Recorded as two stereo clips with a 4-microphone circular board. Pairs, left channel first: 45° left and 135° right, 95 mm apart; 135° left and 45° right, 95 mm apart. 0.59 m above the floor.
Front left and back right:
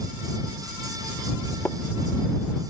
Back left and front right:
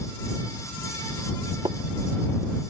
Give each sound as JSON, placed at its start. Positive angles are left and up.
{"t": 1.6, "sound": "tapping", "azimuth_deg": -25}